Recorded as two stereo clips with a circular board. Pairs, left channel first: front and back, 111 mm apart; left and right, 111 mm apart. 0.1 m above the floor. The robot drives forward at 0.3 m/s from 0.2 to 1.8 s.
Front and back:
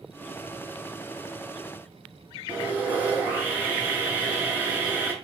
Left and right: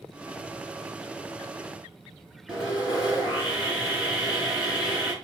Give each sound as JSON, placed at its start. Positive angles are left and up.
{"t": 2.5, "sound": "sawing", "azimuth_deg": -150, "distance_m": 1.1}